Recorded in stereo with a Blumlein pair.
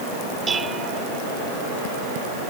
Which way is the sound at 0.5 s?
15° right.